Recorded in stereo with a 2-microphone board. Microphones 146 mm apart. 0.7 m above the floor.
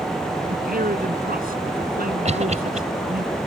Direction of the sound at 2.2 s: 55° right (ahead or behind).